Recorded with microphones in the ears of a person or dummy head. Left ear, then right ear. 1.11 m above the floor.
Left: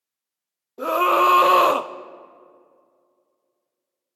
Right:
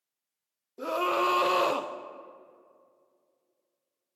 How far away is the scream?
About 0.5 m.